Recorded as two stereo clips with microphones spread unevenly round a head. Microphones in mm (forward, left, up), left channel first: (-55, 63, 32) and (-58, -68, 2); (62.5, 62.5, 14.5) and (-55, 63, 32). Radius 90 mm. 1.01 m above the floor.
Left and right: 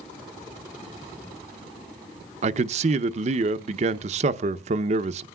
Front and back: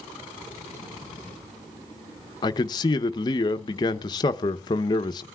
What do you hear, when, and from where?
2.4 s a man speaking: 55° right, 0.6 m